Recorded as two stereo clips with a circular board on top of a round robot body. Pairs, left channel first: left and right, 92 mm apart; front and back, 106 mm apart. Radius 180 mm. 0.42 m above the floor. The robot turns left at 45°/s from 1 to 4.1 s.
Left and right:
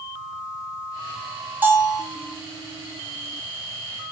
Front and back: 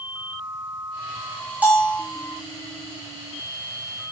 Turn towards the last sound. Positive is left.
turn(degrees=125)